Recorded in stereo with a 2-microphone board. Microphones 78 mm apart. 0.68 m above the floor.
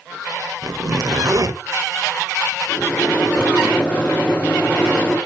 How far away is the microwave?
About 1.5 m.